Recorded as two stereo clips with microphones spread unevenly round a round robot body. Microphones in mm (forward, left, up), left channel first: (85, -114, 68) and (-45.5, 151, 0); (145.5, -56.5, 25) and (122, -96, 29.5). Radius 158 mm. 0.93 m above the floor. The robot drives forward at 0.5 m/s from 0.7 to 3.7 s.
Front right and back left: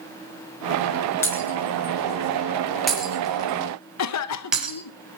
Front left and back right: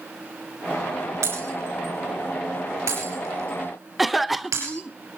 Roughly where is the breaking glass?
Behind right.